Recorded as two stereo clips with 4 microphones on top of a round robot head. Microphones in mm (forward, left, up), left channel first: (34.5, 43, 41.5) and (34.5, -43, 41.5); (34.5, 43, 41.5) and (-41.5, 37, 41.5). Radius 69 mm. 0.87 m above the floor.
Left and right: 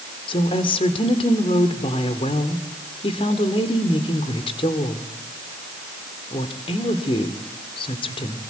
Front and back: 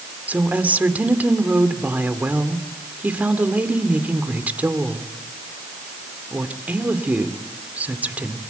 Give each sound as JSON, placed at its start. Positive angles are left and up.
{"t": 0.3, "sound": "a woman speaking", "azimuth_deg": 115, "distance_m": 2.0}